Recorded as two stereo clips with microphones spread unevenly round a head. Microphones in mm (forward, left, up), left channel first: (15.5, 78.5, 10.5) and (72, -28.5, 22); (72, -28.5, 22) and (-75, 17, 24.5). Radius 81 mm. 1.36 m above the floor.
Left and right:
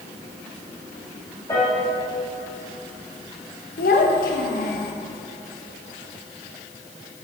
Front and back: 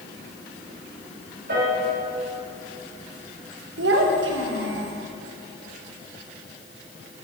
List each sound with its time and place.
1.5 s a piano: 170° right, 3 m
3.8 s a child speaking: 145° left, 1.4 m